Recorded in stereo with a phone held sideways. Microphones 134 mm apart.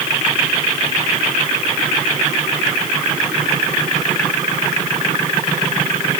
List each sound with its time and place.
Only background noise.